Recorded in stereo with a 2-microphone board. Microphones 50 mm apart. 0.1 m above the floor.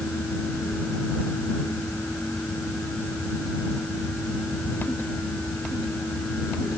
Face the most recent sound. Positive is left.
No sound to turn to.